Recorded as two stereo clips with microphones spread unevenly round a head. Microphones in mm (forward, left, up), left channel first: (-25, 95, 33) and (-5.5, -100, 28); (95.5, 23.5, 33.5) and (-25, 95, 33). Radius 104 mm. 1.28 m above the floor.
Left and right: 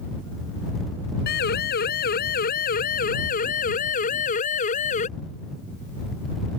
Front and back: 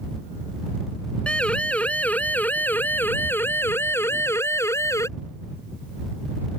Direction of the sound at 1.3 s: 50° left.